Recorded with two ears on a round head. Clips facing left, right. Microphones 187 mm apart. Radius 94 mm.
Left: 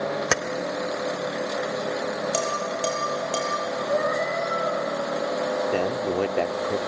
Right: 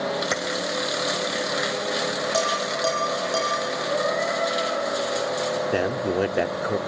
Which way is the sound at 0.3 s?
70° left (ahead or behind).